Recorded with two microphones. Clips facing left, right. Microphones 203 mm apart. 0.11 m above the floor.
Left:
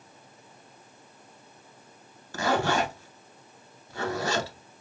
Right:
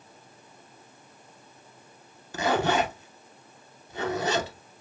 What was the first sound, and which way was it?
A zipper, 20° right (ahead or behind).